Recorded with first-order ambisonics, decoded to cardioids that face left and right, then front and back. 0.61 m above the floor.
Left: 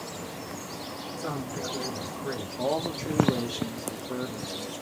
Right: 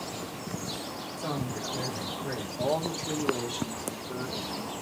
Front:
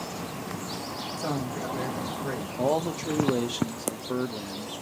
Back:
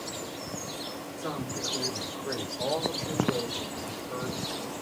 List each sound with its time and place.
1.2 s a woman speaking: straight ahead, 3 m
2.6 s a man speaking: 5° left, 0.9 m